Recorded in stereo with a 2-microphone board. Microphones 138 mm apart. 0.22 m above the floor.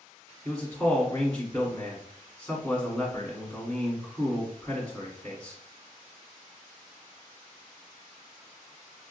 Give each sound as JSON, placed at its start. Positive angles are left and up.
{"t": 0.5, "sound": "a man speaking", "side_deg": 20, "distance_m": 1.3}